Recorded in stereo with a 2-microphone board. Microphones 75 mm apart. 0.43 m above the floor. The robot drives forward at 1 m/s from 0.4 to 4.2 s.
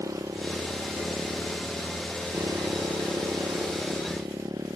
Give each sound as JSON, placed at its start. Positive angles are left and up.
{"t": 0.0, "sound": "a motorcycle", "side_deg": -50}